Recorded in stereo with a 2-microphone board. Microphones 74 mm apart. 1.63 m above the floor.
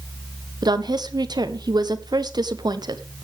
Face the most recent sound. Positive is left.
turn(degrees=-70)  # may be behind; listen again after turning